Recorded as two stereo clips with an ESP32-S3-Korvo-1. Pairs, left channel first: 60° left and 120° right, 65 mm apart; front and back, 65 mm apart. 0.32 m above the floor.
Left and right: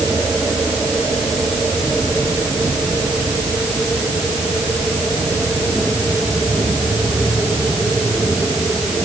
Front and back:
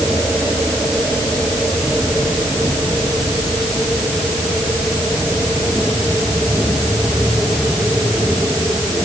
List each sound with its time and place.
Only background noise.